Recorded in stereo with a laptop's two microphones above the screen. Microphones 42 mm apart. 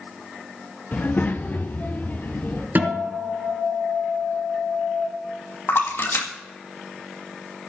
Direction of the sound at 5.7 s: 65° left (ahead or behind).